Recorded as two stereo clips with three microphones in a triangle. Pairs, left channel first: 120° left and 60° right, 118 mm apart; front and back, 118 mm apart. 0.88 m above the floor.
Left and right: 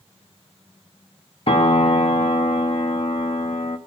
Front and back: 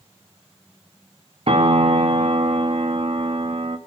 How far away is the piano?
About 0.9 m.